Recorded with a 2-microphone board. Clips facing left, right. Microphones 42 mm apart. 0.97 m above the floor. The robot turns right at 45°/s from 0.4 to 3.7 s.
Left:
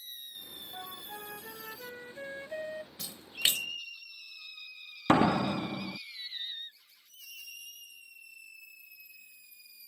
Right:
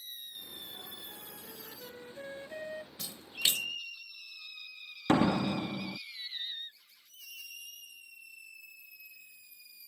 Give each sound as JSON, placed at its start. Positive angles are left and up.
{"t": 0.7, "sound": "a flute", "azimuth_deg": 70}
{"t": 3.0, "sound": "a splash", "side_deg": 10}
{"t": 5.1, "sound": "a door slam", "side_deg": 35}